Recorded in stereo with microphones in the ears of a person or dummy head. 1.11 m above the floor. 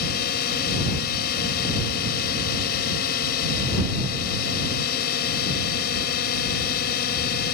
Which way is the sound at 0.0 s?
55° left (ahead or behind).